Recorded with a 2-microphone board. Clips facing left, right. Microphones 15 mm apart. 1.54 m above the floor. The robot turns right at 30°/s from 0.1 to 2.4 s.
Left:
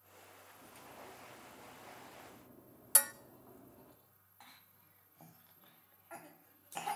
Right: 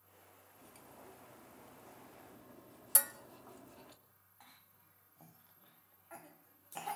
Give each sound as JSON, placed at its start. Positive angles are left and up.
{"t": 0.5, "sound": "cutlery clinking", "azimuth_deg": 180, "distance_m": 2.5}
{"t": 3.0, "sound": "dishes clattering", "side_deg": 25, "distance_m": 0.7}
{"t": 4.4, "sound": "a cough", "side_deg": 10, "distance_m": 1.0}